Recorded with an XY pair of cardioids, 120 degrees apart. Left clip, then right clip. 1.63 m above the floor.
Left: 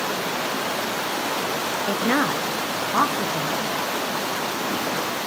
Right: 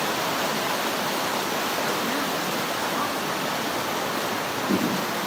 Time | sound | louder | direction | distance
1.9 | a woman speaking | left 4 dB | 55° left | 0.8 m